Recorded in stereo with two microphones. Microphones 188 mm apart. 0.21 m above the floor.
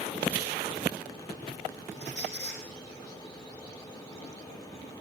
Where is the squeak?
80° left, 7 m.